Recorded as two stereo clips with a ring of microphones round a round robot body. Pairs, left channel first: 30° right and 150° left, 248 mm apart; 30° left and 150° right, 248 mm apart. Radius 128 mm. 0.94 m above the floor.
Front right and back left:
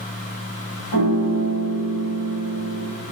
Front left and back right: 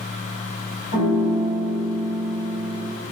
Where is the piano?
25° right, 3 m.